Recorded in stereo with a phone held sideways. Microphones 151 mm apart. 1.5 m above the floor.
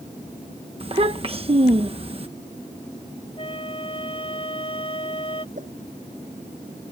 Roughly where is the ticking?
I don't hear ticking.